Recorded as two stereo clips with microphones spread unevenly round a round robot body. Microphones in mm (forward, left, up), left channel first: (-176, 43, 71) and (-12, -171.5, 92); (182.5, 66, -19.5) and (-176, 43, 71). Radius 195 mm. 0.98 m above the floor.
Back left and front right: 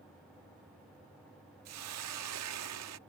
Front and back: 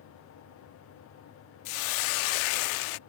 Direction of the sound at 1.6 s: 10° right.